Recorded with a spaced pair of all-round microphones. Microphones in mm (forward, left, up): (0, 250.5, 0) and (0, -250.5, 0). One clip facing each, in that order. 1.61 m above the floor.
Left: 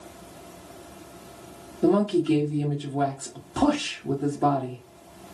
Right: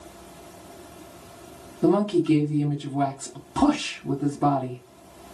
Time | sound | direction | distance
1.8 | a woman speaking | 25° right (ahead or behind) | 0.8 m